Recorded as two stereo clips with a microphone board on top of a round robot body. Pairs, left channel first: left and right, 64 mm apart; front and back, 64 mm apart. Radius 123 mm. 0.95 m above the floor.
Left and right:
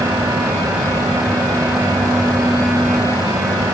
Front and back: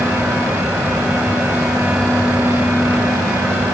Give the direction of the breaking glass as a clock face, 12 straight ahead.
I don't hear breaking glass.